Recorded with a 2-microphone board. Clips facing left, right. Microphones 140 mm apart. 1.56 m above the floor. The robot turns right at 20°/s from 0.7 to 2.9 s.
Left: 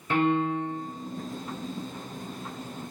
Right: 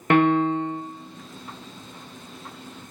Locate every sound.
0.1 s a piano: 70° right (ahead or behind), 0.6 m